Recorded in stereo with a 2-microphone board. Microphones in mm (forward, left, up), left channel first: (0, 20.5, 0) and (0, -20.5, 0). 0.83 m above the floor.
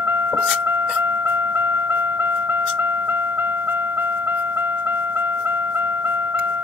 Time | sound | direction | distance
0.0 | a vehicle | 75° right (ahead or behind) | ?